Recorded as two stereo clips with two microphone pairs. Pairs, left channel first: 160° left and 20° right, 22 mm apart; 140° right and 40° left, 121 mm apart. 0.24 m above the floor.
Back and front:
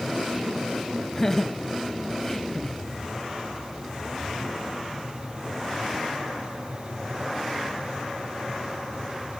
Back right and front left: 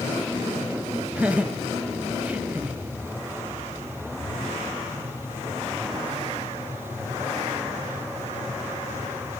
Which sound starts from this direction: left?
Laughter, at 1.1 s.